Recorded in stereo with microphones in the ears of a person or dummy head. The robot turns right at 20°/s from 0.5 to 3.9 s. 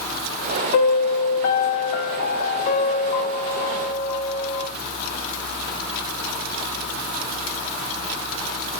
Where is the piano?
90° left, 0.8 m; by 4.7 s 155° left, 0.8 m.